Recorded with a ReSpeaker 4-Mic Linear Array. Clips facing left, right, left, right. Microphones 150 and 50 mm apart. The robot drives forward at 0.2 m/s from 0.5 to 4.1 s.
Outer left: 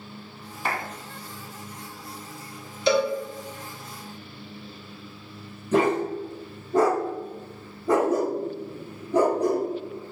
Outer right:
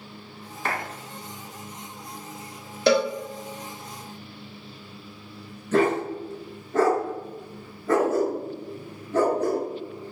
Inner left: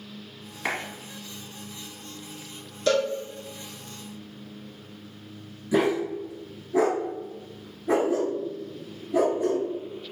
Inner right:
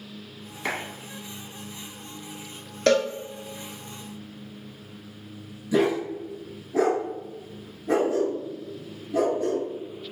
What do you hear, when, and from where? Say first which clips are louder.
0.7 s a clap: even, even; 10° left (ahead or behind), 1.0 m
2.9 s a cowbell: outer right 1 dB, inner right 2 dB; 70° right (ahead or behind), 0.6 m; by 3.1 s 65° right (ahead or behind), 0.6 m
5.7 s a dog barking: even, even; 15° left (ahead or behind), 1.1 m